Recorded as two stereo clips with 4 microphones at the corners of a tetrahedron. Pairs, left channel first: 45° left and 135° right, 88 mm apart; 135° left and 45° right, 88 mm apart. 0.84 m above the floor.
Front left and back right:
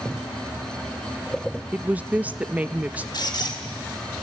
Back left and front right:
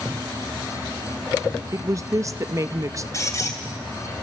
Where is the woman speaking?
70° right, 0.5 m.